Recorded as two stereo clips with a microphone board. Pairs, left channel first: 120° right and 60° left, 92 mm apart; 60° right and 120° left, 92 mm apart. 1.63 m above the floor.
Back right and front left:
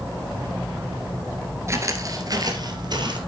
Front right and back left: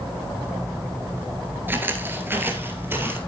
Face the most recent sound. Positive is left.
turn(degrees=60)